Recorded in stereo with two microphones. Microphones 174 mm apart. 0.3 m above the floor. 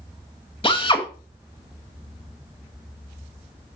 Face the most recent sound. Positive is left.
turn(degrees=30)  # may be behind; listen again after turning